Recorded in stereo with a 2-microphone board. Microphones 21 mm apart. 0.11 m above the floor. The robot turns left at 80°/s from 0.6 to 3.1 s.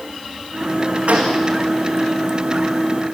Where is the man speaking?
No man speaking in this recording.